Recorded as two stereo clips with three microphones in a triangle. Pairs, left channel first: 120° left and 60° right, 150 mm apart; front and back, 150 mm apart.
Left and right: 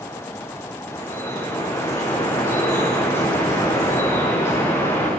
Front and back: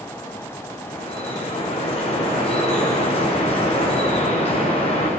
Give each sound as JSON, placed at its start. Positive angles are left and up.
{"t": 0.9, "sound": "dripping", "azimuth_deg": 50, "distance_m": 8.5}